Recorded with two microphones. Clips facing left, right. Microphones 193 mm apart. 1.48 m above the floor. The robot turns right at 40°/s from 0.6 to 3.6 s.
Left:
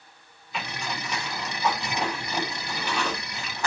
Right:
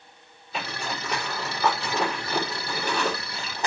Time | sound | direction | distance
0.5 | a zipper | 40° right (ahead or behind) | 5 m